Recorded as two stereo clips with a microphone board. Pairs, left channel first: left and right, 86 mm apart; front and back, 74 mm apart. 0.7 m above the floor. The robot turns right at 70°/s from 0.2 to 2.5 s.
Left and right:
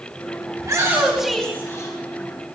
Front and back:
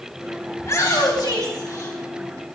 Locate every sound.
0.6 s a shout: 50° right, 3.5 m; by 2.0 s 45° left, 3.5 m